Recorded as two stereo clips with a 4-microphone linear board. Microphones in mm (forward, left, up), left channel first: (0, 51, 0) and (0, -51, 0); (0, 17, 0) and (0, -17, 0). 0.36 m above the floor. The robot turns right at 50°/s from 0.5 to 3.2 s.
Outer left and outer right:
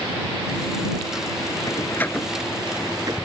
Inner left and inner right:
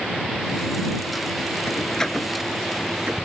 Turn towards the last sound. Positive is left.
turn(degrees=-40)  # may be behind; listen again after turning